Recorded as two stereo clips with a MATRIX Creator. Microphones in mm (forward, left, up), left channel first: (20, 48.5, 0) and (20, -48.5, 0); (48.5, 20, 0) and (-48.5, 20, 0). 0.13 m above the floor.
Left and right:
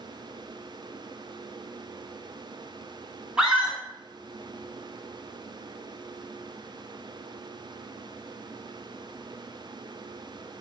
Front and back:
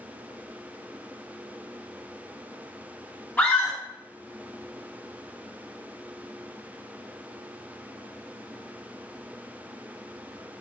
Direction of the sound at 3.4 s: 20° right.